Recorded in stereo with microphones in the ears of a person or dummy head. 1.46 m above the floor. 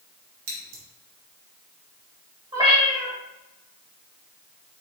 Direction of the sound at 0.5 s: 80° right.